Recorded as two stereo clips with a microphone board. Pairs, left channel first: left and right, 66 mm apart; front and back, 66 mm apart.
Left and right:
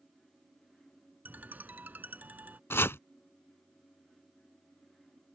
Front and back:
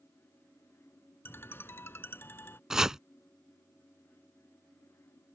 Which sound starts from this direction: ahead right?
A ringtone, at 1.2 s.